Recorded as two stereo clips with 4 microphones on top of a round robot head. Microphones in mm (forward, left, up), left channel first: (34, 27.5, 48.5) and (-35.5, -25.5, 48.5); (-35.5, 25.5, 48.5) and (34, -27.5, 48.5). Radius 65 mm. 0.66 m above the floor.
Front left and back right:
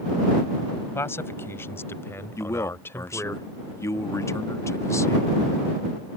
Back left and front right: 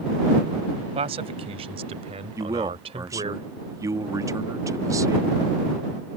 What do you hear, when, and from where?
0.9 s a man speaking: 25° right
2.4 s a man speaking: 5° right